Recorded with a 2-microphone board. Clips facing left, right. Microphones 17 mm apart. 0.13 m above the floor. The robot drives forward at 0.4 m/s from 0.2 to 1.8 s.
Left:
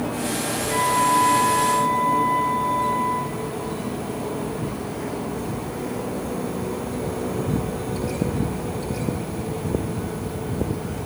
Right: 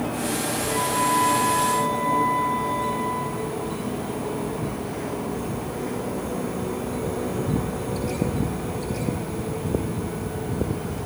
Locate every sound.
0.7 s a flute: 20° right (ahead or behind), 5 m